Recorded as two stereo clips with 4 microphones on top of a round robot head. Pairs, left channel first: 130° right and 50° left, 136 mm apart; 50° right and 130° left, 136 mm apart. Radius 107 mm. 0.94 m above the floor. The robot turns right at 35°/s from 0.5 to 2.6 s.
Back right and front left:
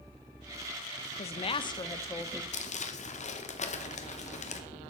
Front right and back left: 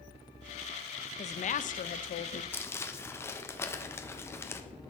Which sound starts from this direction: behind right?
Crumpling, at 2.5 s.